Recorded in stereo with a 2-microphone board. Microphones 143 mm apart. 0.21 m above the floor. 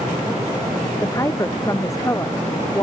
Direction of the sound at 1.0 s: 20° left (ahead or behind).